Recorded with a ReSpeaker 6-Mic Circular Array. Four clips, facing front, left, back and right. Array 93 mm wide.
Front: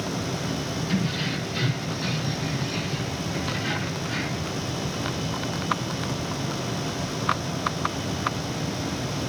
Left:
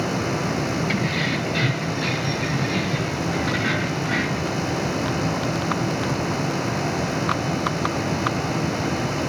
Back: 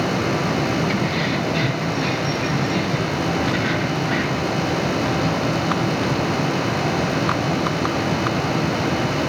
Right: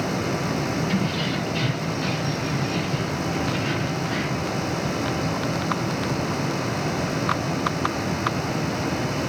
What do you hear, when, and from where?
0.9 s keys jangling: 125° left, 6 m; by 4.5 s 145° left, 4 m